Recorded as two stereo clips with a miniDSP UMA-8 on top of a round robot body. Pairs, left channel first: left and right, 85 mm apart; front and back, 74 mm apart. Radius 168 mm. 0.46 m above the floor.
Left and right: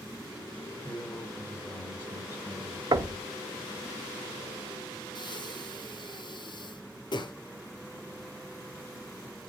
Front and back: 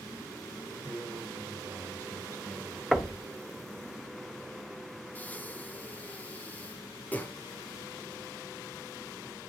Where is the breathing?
65° left, 1.2 m.